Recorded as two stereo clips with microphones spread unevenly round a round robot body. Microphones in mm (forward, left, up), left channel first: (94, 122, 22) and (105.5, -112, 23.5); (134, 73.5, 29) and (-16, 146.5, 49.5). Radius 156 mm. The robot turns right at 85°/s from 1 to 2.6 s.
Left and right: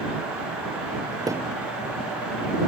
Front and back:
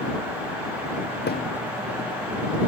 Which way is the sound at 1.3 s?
15° right.